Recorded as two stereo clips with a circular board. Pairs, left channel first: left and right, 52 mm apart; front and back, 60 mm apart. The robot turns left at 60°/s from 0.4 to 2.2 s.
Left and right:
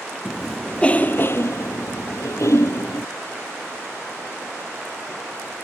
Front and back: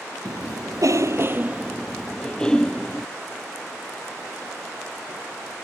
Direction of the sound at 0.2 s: 175° right.